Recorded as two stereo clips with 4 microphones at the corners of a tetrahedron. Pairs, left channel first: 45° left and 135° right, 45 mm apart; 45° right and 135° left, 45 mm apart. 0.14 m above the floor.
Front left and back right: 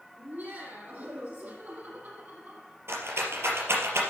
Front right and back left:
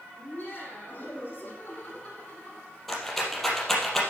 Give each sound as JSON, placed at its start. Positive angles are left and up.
{"t": 0.2, "sound": "laughter", "azimuth_deg": -90, "distance_m": 6.5}
{"t": 2.9, "sound": "a rattle", "azimuth_deg": -130, "distance_m": 3.5}